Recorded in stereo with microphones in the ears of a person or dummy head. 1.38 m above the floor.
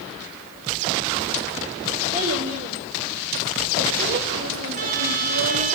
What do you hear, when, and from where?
2.1 s a child speaking: 30° right (ahead or behind), 3.5 m; by 5.7 s 85° right, 1.5 m
4.7 s a trumpet: 40° right (ahead or behind), 2 m